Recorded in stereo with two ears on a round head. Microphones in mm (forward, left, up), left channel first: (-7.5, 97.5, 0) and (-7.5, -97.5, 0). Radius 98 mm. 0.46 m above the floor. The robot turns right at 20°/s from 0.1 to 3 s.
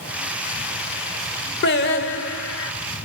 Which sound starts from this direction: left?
Singing, at 1.6 s.